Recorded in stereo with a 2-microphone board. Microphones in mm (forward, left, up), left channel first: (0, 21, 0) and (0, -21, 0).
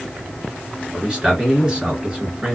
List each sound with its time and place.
0.9 s a man speaking: 20° right (ahead or behind), 1.5 m